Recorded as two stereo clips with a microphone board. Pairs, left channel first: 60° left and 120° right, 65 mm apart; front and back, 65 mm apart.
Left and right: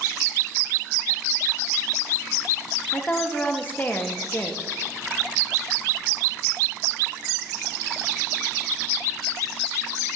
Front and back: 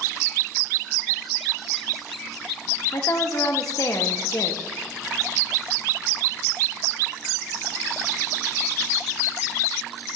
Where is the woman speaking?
5° left, 0.8 m.